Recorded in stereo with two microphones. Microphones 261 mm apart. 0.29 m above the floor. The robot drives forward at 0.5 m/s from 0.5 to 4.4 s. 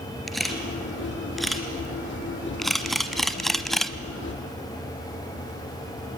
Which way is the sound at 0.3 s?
Centre (ahead or behind).